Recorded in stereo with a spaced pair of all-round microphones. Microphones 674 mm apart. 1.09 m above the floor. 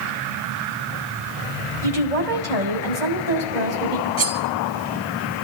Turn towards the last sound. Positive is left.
turn(degrees=10)  # may be behind; listen again after turning